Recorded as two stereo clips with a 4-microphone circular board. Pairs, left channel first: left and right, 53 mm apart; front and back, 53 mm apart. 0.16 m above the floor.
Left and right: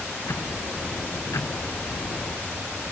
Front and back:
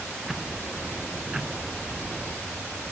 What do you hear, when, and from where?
0.2 s ticking: 100° left